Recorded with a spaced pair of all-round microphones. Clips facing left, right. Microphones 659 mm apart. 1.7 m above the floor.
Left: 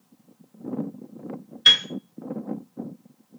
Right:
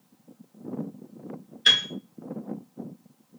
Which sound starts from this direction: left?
A piano, at 1.6 s.